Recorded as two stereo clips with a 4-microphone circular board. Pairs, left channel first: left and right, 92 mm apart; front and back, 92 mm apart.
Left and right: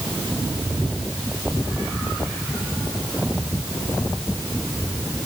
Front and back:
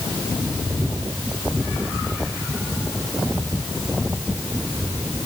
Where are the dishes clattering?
No dishes clattering in this recording.